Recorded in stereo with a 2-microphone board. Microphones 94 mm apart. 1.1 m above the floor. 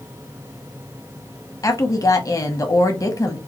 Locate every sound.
1.6 s a woman speaking: 35° left (ahead or behind), 0.8 m